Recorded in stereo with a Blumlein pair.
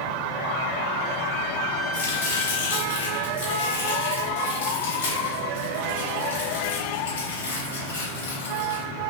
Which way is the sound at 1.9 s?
70° left.